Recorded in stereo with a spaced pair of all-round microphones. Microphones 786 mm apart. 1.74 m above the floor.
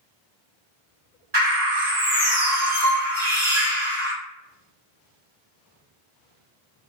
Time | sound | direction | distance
1.3 | a bird | 55° right (ahead or behind) | 2.0 m